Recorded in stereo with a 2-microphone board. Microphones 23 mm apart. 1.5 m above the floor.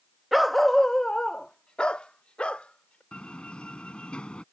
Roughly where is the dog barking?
Centre.